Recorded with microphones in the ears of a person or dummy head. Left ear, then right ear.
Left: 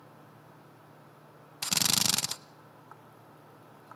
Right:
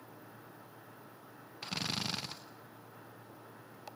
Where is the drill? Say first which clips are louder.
Left 9 dB; 75° left (ahead or behind), 0.9 m.